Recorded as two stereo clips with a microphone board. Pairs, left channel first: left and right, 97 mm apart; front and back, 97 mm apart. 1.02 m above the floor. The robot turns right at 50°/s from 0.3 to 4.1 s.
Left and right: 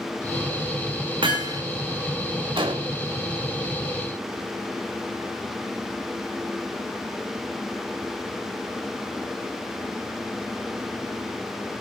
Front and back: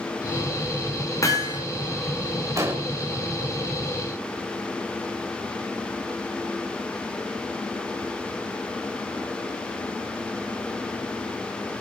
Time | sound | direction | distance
1.2 | hammering | 55° right | 4.5 m
2.6 | an explosion | 125° right | 3 m